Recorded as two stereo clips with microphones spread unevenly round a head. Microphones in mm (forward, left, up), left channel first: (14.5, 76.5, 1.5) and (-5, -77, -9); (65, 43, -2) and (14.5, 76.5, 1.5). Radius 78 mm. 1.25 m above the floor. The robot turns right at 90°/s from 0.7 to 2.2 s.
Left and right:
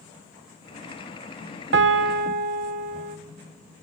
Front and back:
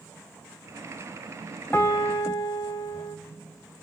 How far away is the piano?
About 0.8 m.